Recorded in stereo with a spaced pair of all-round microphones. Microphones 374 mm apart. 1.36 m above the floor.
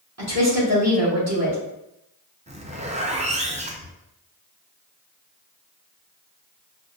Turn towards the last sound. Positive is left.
turn(degrees=-15)  # may be behind; listen again after turning